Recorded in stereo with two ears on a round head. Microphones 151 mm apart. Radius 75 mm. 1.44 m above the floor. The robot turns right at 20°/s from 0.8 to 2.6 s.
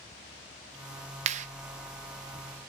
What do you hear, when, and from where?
1.3 s a clap: 40° right (ahead or behind), 0.8 m; by 1.5 s 45° right (ahead or behind), 0.8 m